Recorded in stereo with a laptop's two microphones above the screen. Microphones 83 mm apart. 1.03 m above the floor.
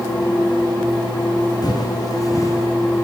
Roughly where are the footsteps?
Left.